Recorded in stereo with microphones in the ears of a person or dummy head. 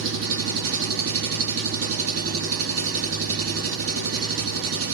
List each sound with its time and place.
0.0 s an engine running: 75° right (ahead or behind), 2 m